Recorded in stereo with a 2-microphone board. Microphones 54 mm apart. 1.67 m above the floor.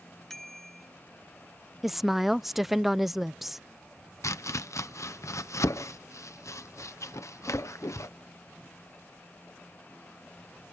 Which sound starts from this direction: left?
Chopping, at 4.2 s.